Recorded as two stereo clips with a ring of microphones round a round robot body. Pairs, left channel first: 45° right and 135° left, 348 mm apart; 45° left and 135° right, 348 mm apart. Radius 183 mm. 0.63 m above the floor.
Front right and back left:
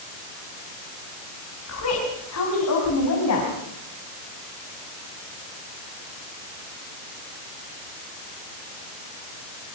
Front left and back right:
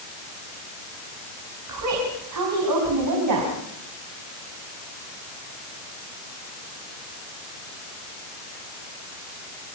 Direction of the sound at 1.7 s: 95° right.